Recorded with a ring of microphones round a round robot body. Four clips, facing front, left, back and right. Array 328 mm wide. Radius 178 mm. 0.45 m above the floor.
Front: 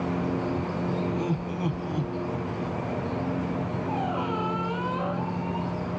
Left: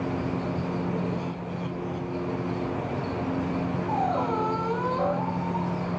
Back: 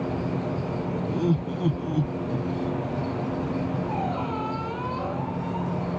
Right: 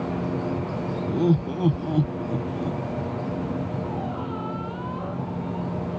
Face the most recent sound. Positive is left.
turn(degrees=75)